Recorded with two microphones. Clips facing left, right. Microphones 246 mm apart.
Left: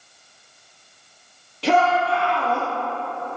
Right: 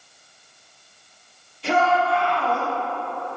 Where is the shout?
70° left (ahead or behind), 3.5 m; by 2.7 s 60° left (ahead or behind), 2.5 m.